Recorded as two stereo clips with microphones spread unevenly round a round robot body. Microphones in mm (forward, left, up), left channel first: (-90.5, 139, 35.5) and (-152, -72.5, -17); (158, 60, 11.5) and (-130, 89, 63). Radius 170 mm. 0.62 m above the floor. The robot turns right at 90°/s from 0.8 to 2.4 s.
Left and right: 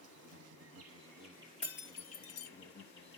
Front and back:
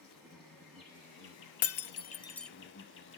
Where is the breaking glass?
5° left, 0.5 m; by 2.5 s 75° left, 0.5 m.